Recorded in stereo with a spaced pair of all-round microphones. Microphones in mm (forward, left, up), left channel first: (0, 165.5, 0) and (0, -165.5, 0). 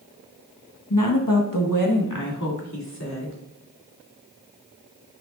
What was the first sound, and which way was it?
A woman speaking, 65° left (ahead or behind).